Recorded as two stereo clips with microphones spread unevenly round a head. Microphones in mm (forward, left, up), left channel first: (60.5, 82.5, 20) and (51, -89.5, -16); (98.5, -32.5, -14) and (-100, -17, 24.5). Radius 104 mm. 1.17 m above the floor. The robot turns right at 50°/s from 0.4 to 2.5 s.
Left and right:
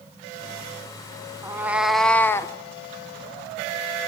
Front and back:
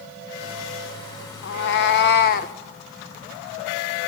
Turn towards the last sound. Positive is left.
turn(degrees=40)